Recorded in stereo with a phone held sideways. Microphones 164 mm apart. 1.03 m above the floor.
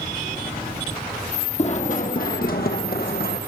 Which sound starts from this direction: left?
Running footsteps, at 1.6 s.